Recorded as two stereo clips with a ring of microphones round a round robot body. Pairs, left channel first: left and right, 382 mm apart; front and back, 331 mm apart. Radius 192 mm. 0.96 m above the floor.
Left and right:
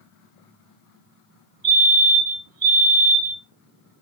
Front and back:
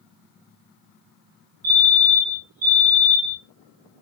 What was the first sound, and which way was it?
A fire alarm, 130° right.